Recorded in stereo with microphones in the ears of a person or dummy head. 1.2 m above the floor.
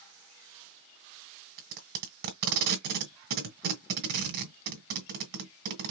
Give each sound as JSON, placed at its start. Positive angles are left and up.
{"t": 1.6, "sound": "tape being pulled", "side_deg": -55, "distance_m": 1.4}